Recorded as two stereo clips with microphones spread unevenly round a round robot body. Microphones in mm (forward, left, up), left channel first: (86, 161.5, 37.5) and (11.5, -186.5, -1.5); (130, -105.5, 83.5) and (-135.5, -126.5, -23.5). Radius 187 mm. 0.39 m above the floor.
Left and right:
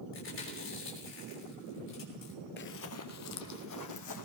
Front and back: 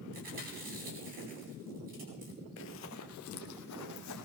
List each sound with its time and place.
0.1 s chewing: 140° left, 3 m
2.6 s running footsteps: 25° left, 0.6 m; by 4.2 s 40° left, 1.8 m